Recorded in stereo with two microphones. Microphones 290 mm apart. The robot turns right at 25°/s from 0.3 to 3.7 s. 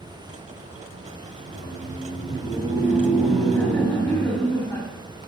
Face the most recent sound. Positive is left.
turn(degrees=10)